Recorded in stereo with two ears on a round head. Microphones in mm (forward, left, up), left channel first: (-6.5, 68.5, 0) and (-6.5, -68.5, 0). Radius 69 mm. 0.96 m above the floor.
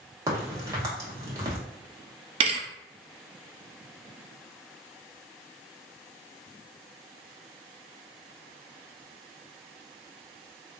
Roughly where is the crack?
Right.